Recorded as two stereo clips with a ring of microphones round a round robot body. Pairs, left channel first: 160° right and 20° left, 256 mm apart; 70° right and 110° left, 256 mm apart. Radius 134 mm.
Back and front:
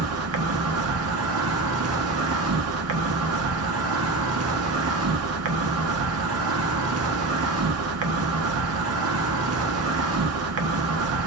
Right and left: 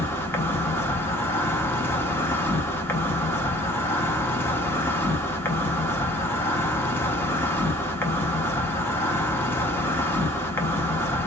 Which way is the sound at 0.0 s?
10° left.